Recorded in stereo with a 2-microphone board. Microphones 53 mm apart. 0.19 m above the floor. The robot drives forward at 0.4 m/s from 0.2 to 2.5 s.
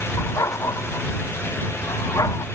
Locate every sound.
0.2 s a dog barking: 80° left